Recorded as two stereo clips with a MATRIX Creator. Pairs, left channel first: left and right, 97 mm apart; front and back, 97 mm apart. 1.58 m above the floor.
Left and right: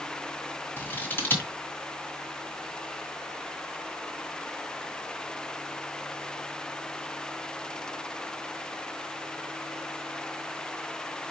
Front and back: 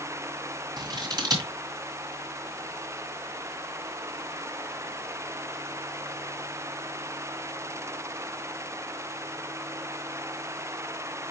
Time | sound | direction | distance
0.8 | scissors | 150° left | 2 m